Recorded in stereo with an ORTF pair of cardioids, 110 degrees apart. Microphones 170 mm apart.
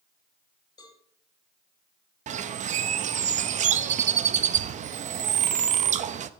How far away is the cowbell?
About 4 m.